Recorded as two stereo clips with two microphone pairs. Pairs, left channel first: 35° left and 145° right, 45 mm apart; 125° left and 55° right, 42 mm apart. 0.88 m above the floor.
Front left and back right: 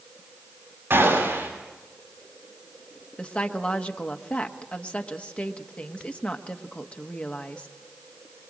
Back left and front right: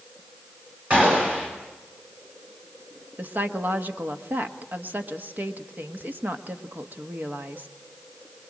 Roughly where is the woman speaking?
Ahead.